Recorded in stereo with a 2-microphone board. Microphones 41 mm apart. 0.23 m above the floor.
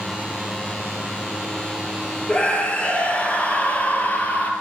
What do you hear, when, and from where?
2.3 s a scream: 25° left (ahead or behind), 6.5 m; by 4.5 s 35° left (ahead or behind), 6 m